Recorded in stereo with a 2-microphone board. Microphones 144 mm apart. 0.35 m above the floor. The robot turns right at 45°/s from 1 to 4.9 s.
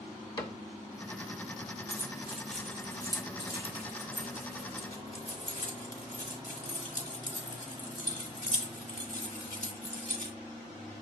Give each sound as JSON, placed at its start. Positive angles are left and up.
{"t": 0.4, "sound": "a cupboard door", "side_deg": 30, "distance_m": 1.1}
{"t": 1.9, "sound": "keys jangling", "side_deg": -25, "distance_m": 1.4}